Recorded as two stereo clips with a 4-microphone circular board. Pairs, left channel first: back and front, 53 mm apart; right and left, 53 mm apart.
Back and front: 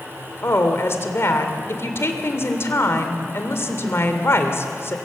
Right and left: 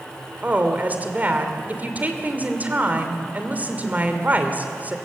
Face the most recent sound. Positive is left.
turn(degrees=145)